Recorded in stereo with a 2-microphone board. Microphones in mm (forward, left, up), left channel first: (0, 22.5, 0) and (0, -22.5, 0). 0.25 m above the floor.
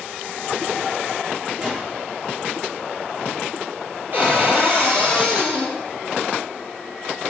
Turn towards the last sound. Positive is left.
turn(degrees=-45)  # may be behind; listen again after turning